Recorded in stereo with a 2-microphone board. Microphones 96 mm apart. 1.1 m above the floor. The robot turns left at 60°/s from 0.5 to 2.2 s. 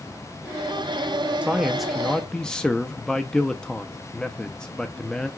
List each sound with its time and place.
1.4 s a man speaking: 15° right (ahead or behind), 0.6 m; by 5.3 s 10° left (ahead or behind), 0.6 m